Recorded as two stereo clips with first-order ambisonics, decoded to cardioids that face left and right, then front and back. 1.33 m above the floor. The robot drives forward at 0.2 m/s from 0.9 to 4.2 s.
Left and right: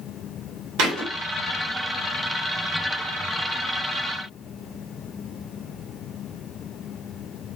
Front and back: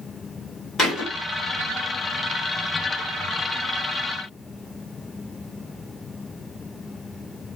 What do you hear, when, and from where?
0.8 s a thud: 75° right, 2 m